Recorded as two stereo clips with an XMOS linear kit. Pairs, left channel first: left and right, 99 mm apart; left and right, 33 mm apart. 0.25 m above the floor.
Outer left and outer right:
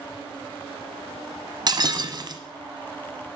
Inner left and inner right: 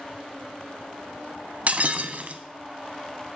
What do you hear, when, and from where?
1.7 s breaking glass: 45° right (ahead or behind), 1.1 m